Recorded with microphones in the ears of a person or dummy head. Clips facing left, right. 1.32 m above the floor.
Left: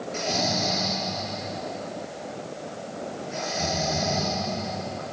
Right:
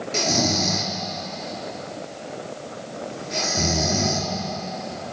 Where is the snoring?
50° right (ahead or behind), 4.5 m.